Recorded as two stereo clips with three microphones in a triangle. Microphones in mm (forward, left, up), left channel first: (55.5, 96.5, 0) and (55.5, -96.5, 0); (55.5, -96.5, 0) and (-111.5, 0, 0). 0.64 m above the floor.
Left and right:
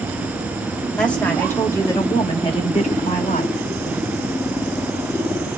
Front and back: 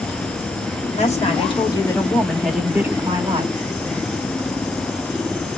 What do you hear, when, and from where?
1.0 s a woman speaking: 5° left, 1.6 m; by 3.5 s 105° left, 1.4 m